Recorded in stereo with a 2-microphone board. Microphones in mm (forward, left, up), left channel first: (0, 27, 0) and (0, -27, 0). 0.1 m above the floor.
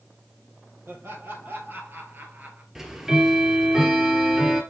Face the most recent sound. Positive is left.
turn(degrees=-10)  # may be behind; listen again after turning